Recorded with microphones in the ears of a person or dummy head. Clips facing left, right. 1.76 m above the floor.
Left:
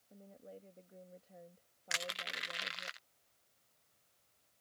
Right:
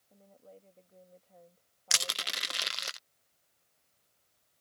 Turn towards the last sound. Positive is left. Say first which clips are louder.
# right 2 dB
turn(degrees=-55)  # may be behind; listen again after turning